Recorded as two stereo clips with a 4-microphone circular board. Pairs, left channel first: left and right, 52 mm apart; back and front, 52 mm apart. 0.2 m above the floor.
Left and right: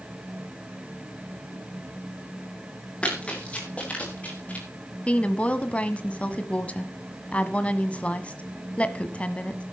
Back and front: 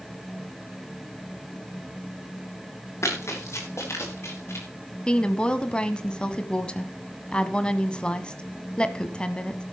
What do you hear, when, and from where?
3.0 s running footsteps: 160° left, 7 m; by 4.7 s 150° left, 7.5 m
5.1 s a woman speaking: 130° left, 1.3 m